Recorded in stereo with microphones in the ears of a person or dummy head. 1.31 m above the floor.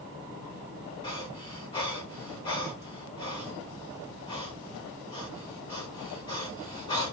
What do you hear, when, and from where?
1.0 s breathing: 25° left (ahead or behind), 1.2 m